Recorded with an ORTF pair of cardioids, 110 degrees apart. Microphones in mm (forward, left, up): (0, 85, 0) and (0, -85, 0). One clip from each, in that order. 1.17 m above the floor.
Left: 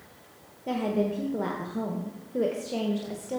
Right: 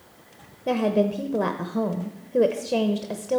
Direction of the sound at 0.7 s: 30° right.